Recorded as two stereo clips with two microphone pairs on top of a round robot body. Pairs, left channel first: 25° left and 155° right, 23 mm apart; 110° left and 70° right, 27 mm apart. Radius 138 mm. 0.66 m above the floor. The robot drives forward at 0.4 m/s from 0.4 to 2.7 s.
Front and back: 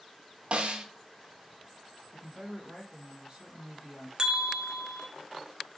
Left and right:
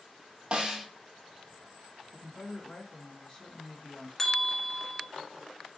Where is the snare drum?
120° right, 0.6 m; by 0.8 s 130° right, 0.7 m.